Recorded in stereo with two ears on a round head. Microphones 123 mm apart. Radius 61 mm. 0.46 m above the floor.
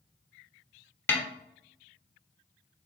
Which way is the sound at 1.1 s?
15° left (ahead or behind).